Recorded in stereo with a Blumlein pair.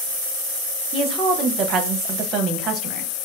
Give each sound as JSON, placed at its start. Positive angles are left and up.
{"t": 0.9, "sound": "a woman speaking", "azimuth_deg": -30, "distance_m": 0.9}